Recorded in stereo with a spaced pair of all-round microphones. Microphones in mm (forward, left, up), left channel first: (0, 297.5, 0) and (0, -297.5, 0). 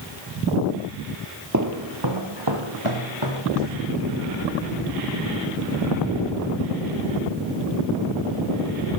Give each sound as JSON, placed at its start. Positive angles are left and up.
{"t": 1.5, "sound": "footsteps", "side_deg": -30, "distance_m": 1.2}